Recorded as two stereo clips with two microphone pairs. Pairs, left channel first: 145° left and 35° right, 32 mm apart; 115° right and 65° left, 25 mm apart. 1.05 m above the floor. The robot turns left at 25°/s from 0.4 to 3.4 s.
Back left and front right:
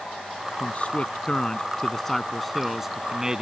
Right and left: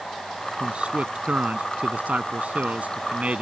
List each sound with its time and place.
0.6 s a man speaking: 105° left; by 3.4 s 35° left